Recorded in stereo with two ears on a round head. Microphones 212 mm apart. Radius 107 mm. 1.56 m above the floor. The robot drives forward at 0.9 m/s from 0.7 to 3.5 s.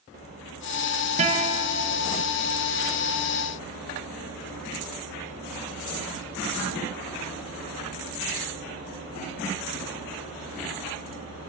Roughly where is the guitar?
Right.